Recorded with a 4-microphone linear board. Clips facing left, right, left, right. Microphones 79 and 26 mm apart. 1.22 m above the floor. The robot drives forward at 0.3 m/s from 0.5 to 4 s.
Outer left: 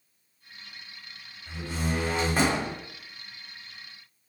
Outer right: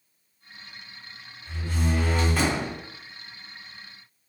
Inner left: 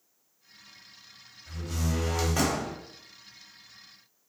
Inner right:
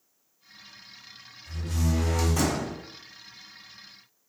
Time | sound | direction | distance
1.5 | a door slam | 15° left (ahead or behind) | 1.2 m